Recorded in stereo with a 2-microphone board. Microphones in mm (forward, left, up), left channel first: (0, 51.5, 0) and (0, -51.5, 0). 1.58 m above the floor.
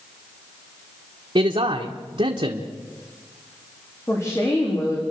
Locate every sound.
1.4 s a man speaking: 70° right (ahead or behind), 1.3 m
4.1 s a woman speaking: 30° left (ahead or behind), 4 m